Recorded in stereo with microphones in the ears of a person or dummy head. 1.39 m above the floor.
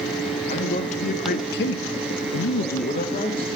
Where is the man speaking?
40° left (ahead or behind), 1.5 m; by 3.5 s 20° left (ahead or behind), 1.1 m.